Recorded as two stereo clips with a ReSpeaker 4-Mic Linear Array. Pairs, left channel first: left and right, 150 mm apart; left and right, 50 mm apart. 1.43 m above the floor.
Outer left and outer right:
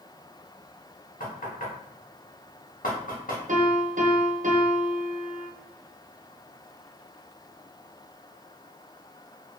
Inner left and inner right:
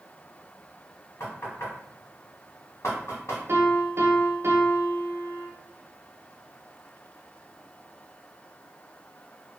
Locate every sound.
1.2 s knocking: 65° left (ahead or behind), 1.3 m
3.5 s a piano: 55° right (ahead or behind), 0.7 m